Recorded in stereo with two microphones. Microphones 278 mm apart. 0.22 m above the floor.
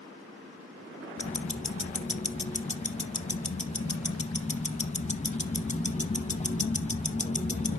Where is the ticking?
25° left (ahead or behind), 0.7 m.